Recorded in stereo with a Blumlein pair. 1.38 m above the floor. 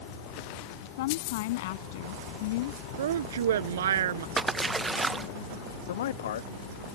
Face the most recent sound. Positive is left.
turn(degrees=60)